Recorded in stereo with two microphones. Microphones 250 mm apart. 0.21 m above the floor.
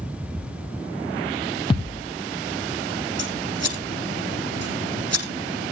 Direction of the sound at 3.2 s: 80° right.